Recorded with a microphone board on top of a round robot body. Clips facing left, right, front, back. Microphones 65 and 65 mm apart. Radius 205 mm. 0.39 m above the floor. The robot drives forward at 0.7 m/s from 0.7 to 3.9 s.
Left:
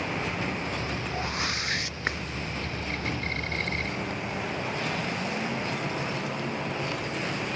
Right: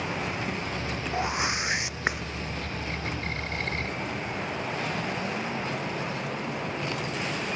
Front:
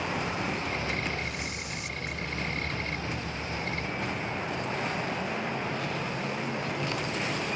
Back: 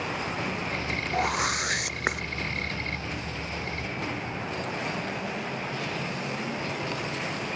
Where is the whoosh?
160° right.